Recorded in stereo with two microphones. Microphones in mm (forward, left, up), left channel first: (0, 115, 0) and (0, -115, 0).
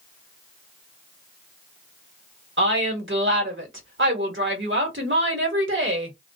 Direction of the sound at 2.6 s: 55° right (ahead or behind).